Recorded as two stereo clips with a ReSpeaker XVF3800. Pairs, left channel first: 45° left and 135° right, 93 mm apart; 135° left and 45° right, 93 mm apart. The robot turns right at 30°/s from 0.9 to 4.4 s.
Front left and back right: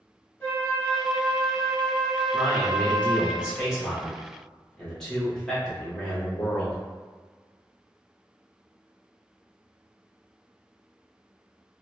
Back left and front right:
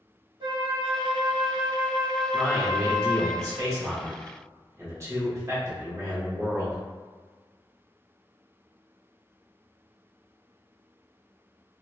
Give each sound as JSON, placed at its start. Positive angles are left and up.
{"t": 0.4, "sound": "a flute", "azimuth_deg": -20, "distance_m": 0.9}
{"t": 2.3, "sound": "a man speaking", "azimuth_deg": -95, "distance_m": 0.9}